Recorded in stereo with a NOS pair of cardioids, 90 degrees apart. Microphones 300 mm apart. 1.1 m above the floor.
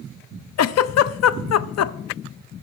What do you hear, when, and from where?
0.6 s a giggle: 60° left, 0.6 m